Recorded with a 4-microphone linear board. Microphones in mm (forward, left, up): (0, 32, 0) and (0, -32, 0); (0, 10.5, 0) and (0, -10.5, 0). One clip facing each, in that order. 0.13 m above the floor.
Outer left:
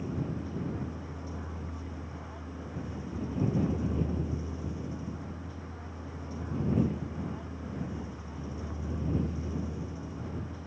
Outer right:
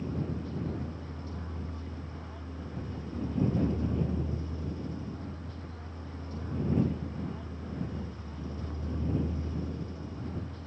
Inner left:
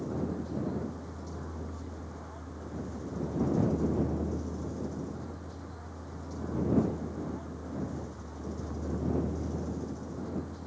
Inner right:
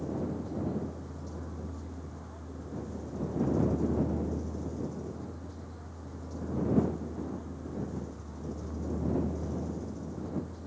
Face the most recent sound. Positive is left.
turn(degrees=10)  # may be behind; listen again after turning